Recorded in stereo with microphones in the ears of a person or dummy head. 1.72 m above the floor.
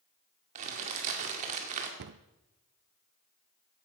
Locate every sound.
0.6 s crumpling: 45° right (ahead or behind), 2 m
2.0 s a cupboard door: 65° right (ahead or behind), 0.5 m